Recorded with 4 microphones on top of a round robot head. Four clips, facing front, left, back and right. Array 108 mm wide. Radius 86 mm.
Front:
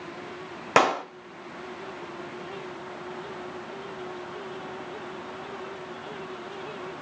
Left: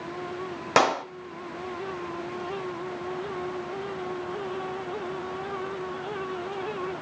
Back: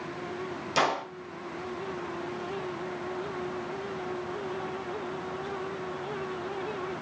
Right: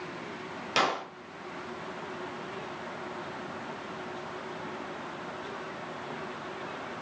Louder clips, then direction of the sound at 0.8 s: Left 7 dB, front 6 dB; 35° left.